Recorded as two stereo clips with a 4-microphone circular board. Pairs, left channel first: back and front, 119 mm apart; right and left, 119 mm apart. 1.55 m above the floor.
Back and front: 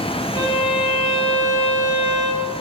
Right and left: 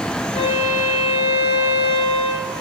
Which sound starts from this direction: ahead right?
A violin, at 0.3 s.